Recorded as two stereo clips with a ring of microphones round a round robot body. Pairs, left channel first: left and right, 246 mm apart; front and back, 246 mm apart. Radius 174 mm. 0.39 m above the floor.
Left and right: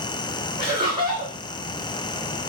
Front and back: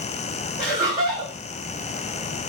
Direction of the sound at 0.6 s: 145° right.